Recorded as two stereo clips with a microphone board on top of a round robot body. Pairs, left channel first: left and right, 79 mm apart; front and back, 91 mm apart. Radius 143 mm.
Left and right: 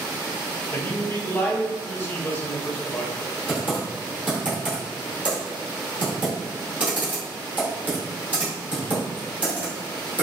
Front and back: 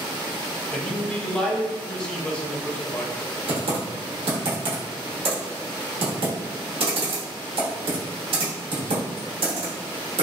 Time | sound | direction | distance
0.7 | a man speaking | 70° left | 1.0 m
3.5 | typing on a keyboard | 160° right | 1.0 m